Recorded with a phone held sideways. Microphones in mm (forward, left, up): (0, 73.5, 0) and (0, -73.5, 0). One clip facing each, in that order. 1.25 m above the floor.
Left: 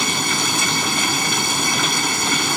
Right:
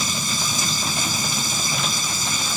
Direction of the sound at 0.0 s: 70° left (ahead or behind).